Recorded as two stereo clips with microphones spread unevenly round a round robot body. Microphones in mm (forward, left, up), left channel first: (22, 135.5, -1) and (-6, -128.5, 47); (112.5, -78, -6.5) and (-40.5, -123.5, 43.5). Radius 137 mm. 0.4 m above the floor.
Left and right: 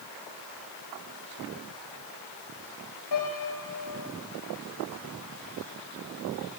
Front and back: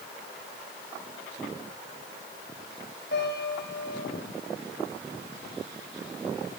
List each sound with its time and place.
3.1 s a piano: 70° left, 8.5 m